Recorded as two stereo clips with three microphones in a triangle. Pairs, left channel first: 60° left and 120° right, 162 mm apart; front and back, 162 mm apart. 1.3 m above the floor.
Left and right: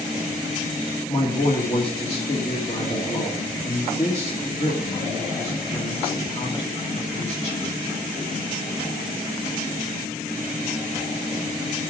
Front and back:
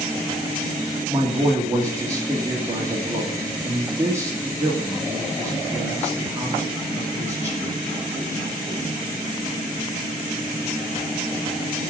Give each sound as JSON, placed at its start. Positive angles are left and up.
{"t": 1.1, "sound": "a man speaking", "azimuth_deg": 110, "distance_m": 2.0}